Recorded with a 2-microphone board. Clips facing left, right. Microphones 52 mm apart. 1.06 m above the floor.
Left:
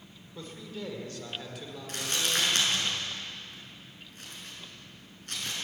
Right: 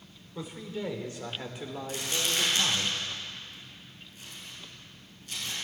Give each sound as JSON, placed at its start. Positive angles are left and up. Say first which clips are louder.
{"t": 0.3, "sound": "a man speaking", "louder": "right 4 dB", "side_deg": -15, "distance_m": 3.0}
{"t": 1.9, "sound": "crumpling", "louder": "left 1 dB", "side_deg": 55, "distance_m": 6.5}